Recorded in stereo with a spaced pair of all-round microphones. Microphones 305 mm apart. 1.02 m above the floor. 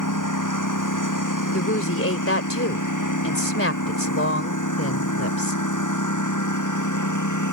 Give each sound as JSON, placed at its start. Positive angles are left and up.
{"t": 0.0, "sound": "a lawn mower", "side_deg": 85}
{"t": 1.5, "sound": "a woman speaking", "side_deg": 45}